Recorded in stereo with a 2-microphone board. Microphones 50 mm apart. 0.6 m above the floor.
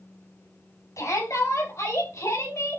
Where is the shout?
80° left, 5 m; by 2.8 s 70° left (ahead or behind), 6.5 m.